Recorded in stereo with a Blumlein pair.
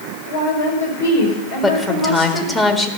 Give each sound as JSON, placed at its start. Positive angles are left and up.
{"t": 0.2, "sound": "a woman speaking", "azimuth_deg": 65, "distance_m": 5.5}
{"t": 1.6, "sound": "a woman speaking", "azimuth_deg": 10, "distance_m": 1.8}